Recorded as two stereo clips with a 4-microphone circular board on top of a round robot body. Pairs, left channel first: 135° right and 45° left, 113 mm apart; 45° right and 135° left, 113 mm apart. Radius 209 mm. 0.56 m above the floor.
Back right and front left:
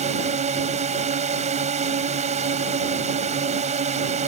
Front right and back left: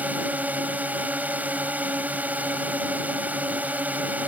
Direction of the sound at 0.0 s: 60° left.